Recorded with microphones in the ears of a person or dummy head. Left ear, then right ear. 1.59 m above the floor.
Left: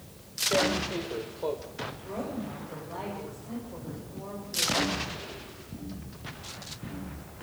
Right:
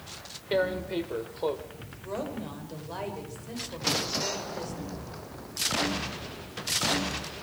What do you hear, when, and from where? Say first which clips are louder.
0.5 s tearing paper: right 1 dB; 25° right (ahead or behind), 1.8 m
2.0 s a woman speaking: right 1 dB; 85° right, 7 m